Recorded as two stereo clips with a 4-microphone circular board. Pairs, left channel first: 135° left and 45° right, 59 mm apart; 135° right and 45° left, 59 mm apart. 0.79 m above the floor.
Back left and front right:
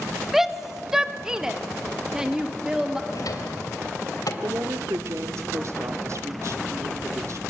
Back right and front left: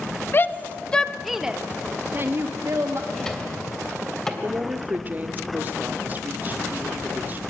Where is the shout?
130° right, 1.0 m; by 3.0 s 30° left, 1.4 m.